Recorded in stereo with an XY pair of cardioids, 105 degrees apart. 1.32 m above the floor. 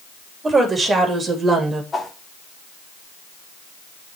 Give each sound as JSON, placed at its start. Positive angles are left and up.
{"t": 0.4, "sound": "a woman speaking", "azimuth_deg": -30, "distance_m": 3.5}
{"t": 1.9, "sound": "a whoosh", "azimuth_deg": 25, "distance_m": 1.9}